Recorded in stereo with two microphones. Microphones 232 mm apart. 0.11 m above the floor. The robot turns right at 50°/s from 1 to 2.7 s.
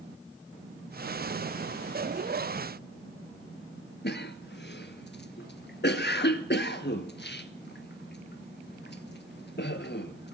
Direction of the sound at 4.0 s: 50° left (ahead or behind).